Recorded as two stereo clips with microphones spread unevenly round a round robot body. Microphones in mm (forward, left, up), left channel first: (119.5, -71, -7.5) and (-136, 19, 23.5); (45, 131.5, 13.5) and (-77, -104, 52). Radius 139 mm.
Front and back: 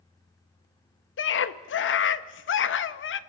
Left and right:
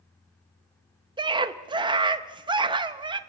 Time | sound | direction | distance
1.2 | a scream | 40° right | 1.0 m